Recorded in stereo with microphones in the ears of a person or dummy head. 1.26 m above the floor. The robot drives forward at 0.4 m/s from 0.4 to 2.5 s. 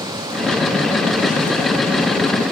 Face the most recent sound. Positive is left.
No sound to turn to.